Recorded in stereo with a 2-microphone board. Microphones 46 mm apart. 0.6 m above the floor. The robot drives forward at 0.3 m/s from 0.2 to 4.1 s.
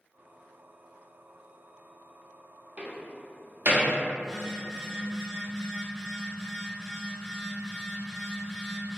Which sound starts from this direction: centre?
A phone buzzing, at 4.2 s.